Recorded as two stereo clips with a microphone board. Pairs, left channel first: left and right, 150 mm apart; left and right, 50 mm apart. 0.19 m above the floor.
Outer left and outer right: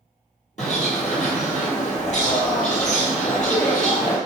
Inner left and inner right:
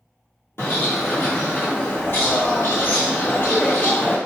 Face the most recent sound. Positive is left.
turn(degrees=50)  # may be behind; listen again after turning